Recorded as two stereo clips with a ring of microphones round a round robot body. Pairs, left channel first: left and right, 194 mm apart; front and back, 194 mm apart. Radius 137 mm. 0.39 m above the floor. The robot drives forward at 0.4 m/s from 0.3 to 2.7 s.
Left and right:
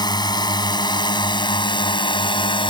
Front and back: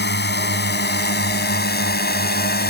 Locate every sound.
0.0 s a drone: 25° left; by 2.7 s 30° left